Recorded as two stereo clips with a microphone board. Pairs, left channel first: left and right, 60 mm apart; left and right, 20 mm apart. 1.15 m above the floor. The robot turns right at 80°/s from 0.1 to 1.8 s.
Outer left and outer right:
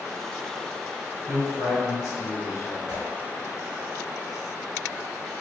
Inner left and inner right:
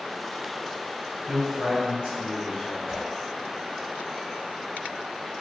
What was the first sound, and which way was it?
A man speaking, 120° right.